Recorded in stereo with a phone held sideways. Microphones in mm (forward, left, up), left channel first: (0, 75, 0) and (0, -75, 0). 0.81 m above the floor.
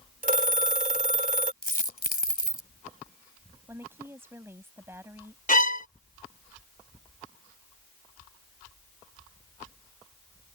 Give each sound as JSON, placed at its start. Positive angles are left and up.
{"t": 0.2, "sound": "a phone ringing", "side_deg": -65}
{"t": 1.6, "sound": "a dropped coin", "side_deg": 80}
{"t": 3.7, "sound": "a woman speaking", "side_deg": -15}
{"t": 5.5, "sound": "a violin", "side_deg": 65}